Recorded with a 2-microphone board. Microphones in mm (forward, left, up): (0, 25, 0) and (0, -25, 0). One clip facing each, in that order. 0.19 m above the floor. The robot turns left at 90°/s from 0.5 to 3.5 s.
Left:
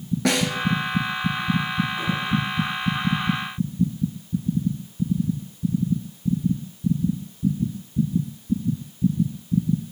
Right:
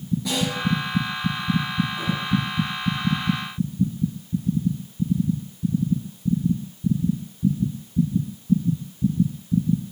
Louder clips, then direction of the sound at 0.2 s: Left 6 dB; 65° left (ahead or behind).